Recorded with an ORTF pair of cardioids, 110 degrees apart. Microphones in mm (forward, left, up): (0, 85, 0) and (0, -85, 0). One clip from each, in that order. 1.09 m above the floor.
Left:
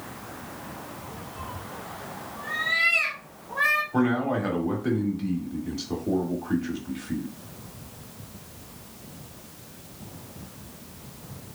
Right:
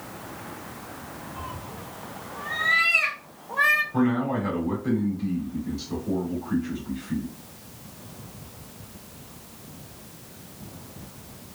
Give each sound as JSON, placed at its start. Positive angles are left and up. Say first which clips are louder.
{"t": 1.4, "sound": "a cat meowing", "louder": "even", "azimuth_deg": -10, "distance_m": 1.1}
{"t": 3.9, "sound": "a man speaking", "louder": "even", "azimuth_deg": 45, "distance_m": 1.7}